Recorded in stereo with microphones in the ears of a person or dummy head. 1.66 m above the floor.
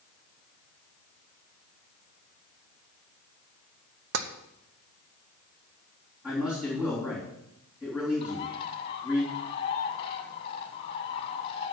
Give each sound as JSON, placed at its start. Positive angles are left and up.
{"t": 4.1, "sound": "tapping", "side_deg": -75, "distance_m": 0.8}
{"t": 6.2, "sound": "a man speaking", "side_deg": -10, "distance_m": 3.5}
{"t": 8.2, "sound": "a bird", "side_deg": 35, "distance_m": 1.2}